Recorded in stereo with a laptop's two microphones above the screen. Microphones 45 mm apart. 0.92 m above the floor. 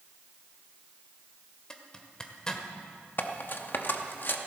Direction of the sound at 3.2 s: 50° left (ahead or behind).